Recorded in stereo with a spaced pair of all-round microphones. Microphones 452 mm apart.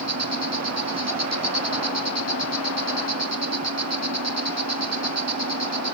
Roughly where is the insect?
Right.